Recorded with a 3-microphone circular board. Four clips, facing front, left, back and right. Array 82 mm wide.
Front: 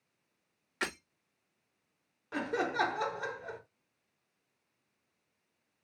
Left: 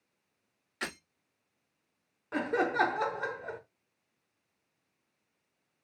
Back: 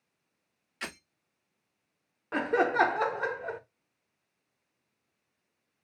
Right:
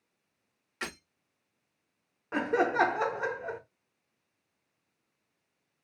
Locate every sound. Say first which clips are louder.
0.8 s breaking glass: even, front 4 dB; 10° right, 3.5 m
2.3 s laughter: right 2 dB, back 7 dB; 170° right, 1.0 m